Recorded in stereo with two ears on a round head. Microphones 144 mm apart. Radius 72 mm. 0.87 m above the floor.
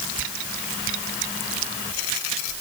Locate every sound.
Only background noise.